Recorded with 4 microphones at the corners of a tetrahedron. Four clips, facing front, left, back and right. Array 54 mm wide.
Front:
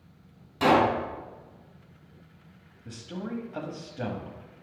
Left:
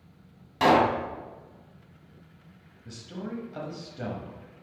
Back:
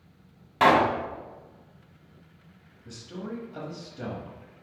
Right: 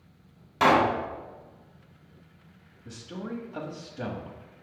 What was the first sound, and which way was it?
A pop, 170° right.